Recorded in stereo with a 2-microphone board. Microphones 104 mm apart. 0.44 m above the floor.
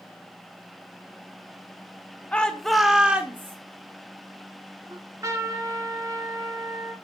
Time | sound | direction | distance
2.3 | a shout | 10° left (ahead or behind) | 0.9 m
4.9 | a trumpet | 30° right (ahead or behind) | 1.3 m